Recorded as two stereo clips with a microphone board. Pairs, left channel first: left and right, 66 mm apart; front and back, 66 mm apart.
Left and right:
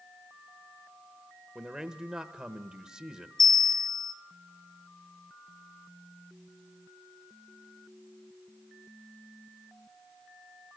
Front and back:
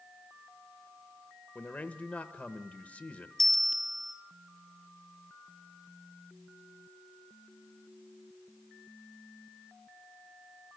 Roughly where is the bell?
Right.